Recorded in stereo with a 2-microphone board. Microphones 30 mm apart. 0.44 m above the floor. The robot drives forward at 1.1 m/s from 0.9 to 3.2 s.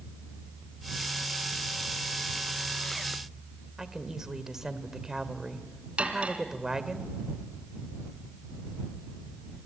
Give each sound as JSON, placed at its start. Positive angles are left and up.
{"t": 3.8, "sound": "a woman speaking", "side_deg": -20, "distance_m": 1.7}
{"t": 6.0, "sound": "cutlery clinking", "side_deg": -45, "distance_m": 2.5}